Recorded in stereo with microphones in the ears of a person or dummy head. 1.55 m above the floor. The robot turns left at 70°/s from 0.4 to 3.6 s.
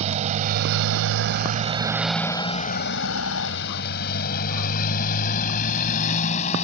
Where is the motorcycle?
40° right (ahead or behind); by 6.6 s 35° left (ahead or behind).